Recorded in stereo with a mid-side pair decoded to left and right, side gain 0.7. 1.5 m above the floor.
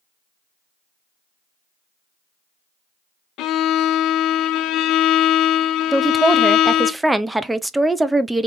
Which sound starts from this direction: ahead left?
A violin, at 3.4 s.